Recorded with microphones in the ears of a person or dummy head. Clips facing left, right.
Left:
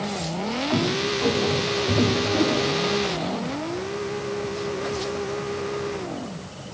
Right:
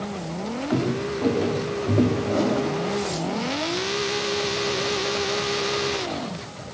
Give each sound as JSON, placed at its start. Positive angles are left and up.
{"t": 0.7, "sound": "footsteps", "side_deg": -45, "distance_m": 9.5}
{"t": 2.2, "sound": "a whoosh", "side_deg": -85, "distance_m": 6.0}